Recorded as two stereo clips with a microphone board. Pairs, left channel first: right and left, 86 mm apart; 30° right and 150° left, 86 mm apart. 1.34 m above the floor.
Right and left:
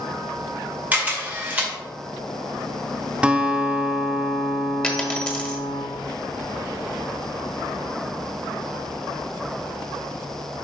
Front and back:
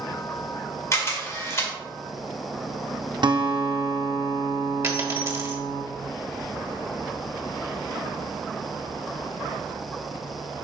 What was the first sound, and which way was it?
A camera shutter, 20° left.